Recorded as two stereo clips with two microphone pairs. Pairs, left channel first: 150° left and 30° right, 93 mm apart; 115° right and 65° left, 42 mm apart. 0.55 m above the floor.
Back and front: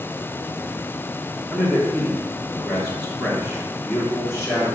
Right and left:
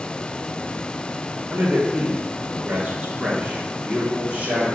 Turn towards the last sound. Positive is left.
turn(degrees=90)